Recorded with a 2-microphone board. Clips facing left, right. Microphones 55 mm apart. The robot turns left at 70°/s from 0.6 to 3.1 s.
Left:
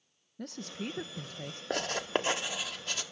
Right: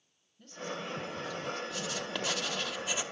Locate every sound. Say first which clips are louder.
0.4 s a woman speaking: even; 95° left, 1.1 m; by 1.6 s 25° left, 1.1 m
1.7 s writing: left 5 dB; 55° left (ahead or behind), 1.7 m; by 3.0 s 20° right (ahead or behind), 1.7 m